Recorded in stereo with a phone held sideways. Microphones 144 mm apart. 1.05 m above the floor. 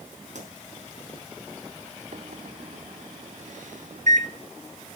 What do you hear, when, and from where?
0.3 s a pop: 60° right (ahead or behind), 4 m
2.1 s a microwave: 65° right (ahead or behind), 2 m